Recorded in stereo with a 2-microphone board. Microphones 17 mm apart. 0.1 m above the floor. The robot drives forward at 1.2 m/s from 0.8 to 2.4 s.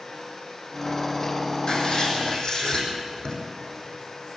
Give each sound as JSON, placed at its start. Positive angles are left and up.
{"t": 1.7, "sound": "writing", "side_deg": 50, "distance_m": 5.0}